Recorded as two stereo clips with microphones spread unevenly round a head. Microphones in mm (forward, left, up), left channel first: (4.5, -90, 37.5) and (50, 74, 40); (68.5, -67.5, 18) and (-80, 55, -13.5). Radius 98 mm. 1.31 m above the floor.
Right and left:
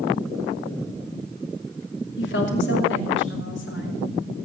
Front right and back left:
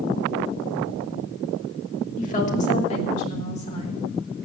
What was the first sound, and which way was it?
A woman speaking, 90° right.